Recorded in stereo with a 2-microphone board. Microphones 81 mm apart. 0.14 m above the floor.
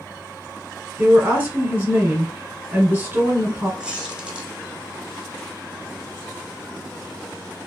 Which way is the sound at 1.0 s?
25° right (ahead or behind).